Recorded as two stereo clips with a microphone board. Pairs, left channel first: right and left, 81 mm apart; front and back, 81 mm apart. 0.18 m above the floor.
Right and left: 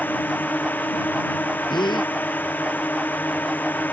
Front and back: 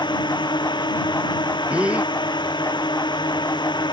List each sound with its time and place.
0.0 s a drone: 20° right
1.7 s a gasp: 105° right